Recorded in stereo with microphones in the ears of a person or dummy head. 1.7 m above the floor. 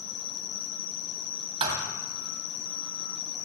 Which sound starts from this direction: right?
A thud, at 1.6 s.